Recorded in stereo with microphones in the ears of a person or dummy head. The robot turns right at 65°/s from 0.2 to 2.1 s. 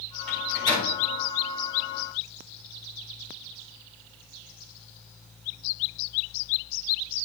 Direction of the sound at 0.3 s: Centre (ahead or behind).